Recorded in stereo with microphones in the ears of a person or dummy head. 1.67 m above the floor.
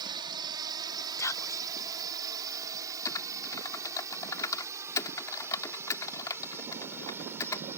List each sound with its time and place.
0.0 s a drone: 25° right (ahead or behind); by 7.8 s 10° right (ahead or behind)
1.2 s whispering: 15° left (ahead or behind)
3.0 s typing on a keyboard: 20° left (ahead or behind)